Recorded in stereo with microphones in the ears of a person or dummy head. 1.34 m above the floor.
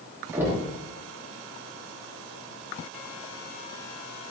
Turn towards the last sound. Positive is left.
turn(degrees=-10)  # may be behind; listen again after turning